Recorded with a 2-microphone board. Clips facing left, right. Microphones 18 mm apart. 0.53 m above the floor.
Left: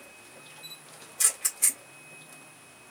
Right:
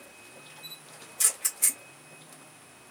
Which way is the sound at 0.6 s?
5° left (ahead or behind).